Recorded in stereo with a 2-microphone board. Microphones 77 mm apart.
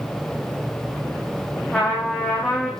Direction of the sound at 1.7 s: 15° left (ahead or behind).